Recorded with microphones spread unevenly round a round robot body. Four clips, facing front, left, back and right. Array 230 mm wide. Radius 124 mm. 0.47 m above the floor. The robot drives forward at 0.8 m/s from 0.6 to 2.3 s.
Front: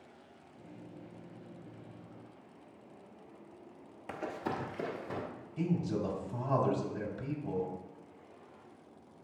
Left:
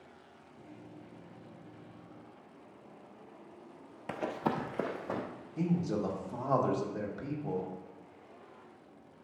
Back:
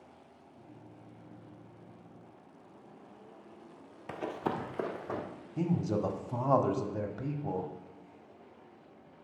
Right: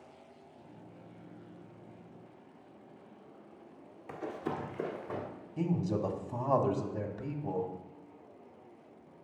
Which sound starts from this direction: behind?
A man speaking, at 5.6 s.